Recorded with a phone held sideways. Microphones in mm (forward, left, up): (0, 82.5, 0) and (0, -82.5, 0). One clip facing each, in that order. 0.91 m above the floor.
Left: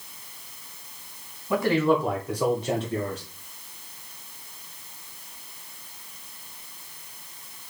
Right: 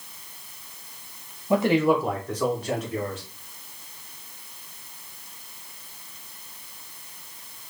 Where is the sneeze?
I don't hear a sneeze.